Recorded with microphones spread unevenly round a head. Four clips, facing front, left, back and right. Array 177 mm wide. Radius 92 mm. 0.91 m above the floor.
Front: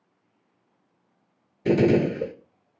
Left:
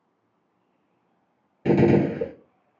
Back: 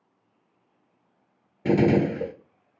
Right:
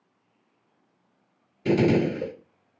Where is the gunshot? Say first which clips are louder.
Left 3 dB, front 1 dB; 160° left, 1.6 m.